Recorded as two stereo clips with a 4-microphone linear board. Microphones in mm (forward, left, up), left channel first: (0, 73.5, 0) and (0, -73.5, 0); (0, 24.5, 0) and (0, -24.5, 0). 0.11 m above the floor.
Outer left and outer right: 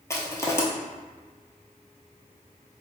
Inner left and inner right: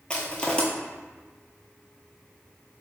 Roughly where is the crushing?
Centre.